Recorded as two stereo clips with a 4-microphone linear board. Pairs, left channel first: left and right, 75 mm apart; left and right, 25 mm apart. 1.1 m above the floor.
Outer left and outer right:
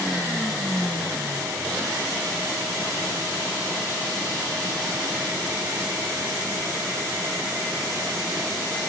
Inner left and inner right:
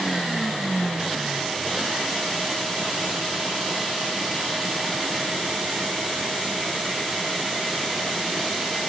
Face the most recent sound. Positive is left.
No sound to turn to.